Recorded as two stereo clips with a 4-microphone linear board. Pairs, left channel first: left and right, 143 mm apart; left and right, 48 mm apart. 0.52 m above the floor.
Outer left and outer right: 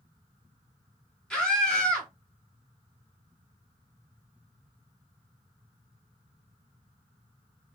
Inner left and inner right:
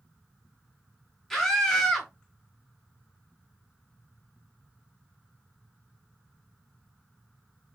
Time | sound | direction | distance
1.3 | a scream | 5° left (ahead or behind) | 1.4 m